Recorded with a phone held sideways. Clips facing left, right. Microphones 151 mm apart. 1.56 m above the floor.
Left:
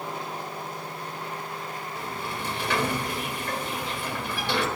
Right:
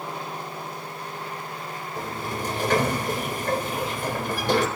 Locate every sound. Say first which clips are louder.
2.0 s a sliding door: right 5 dB; 45° right (ahead or behind), 4 m